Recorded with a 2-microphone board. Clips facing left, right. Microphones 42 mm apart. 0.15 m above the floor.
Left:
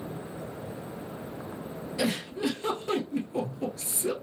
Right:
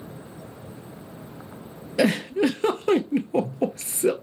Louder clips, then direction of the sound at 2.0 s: Right 9 dB; 70° right (ahead or behind).